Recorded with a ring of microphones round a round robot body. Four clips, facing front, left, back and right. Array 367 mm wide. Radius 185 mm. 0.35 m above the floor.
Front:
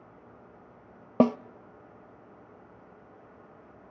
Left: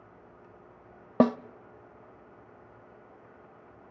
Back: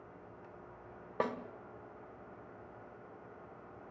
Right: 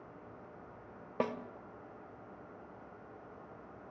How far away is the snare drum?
About 0.7 m.